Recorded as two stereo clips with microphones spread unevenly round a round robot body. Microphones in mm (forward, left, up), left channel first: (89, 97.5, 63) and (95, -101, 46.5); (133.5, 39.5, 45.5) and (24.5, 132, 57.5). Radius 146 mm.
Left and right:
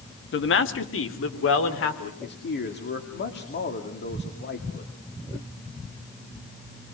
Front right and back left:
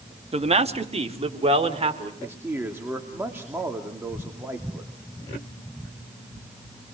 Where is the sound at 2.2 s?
65° left, 2.5 m.